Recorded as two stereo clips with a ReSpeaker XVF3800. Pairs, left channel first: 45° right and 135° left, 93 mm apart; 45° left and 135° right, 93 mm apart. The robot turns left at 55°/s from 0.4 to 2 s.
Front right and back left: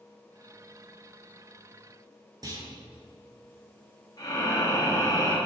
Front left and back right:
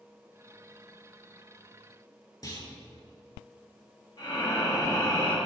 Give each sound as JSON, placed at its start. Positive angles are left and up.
{"t": 2.4, "sound": "a clunk", "azimuth_deg": 90, "distance_m": 4.0}
{"t": 4.2, "sound": "breathing", "azimuth_deg": 5, "distance_m": 4.0}